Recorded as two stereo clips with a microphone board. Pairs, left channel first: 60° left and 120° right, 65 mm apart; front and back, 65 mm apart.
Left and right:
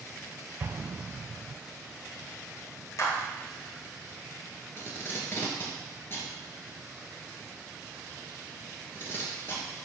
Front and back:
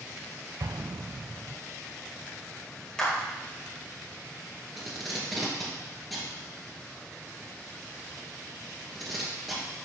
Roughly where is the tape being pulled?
Left.